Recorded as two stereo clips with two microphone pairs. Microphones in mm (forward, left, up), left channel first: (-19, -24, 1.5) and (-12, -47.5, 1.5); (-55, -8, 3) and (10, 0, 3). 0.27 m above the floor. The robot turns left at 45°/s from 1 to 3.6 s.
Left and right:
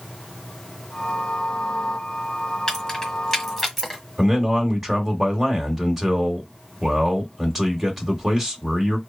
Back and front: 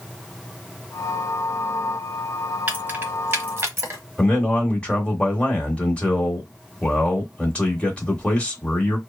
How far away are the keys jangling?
About 1.1 m.